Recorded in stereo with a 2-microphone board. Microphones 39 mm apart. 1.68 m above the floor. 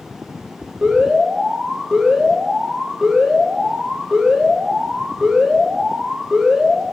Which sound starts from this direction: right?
An alarm, at 0.8 s.